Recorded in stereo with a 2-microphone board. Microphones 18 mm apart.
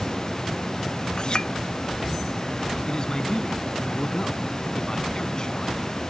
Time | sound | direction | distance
1.2 | a clink | 55° left (ahead or behind) | ?
2.9 | a man speaking | 35° left (ahead or behind) | ?